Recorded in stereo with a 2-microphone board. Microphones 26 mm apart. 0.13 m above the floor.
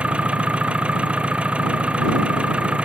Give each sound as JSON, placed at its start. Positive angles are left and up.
{"t": 0.0, "sound": "an engine running", "side_deg": -45}